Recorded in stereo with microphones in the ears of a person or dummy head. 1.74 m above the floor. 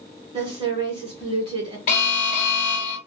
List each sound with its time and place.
0.3 s a woman speaking: 25° right (ahead or behind), 1.2 m
1.9 s an alarm: 40° left (ahead or behind), 1.1 m